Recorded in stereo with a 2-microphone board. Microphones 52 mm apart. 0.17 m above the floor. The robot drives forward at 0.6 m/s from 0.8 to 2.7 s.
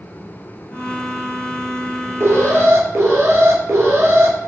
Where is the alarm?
55° right (ahead or behind), 3 m; by 4.3 s 60° right (ahead or behind), 2.5 m.